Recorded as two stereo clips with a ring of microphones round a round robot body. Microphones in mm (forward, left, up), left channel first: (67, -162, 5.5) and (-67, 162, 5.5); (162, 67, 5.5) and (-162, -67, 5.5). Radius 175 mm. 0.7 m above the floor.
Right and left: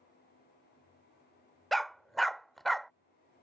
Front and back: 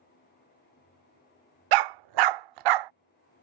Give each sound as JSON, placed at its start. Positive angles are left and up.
{"t": 1.7, "sound": "a dog barking", "azimuth_deg": -155}